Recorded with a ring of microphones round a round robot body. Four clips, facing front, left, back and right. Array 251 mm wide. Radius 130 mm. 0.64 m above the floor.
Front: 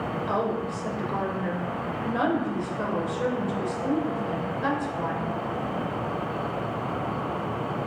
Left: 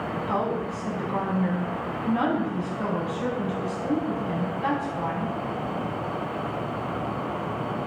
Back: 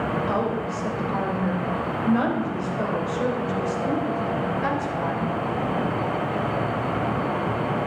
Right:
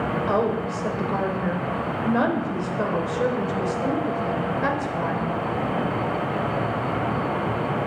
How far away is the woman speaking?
About 3 m.